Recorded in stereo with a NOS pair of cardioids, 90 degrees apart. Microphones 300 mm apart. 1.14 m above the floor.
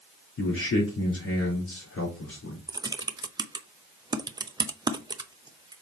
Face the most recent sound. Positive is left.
turn(degrees=-15)